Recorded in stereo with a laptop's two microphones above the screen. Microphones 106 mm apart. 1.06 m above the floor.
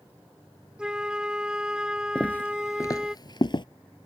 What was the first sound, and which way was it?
A flute, 10° right (ahead or behind).